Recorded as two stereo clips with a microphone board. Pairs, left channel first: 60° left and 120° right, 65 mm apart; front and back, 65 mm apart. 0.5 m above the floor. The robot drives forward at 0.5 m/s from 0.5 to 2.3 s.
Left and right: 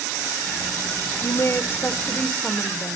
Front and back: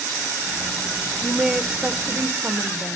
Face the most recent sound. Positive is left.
turn(degrees=125)